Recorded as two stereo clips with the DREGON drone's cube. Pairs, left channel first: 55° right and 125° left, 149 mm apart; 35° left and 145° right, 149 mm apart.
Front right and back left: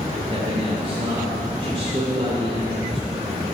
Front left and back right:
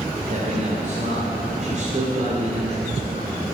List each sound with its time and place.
0.3 s a man speaking: 175° left, 3 m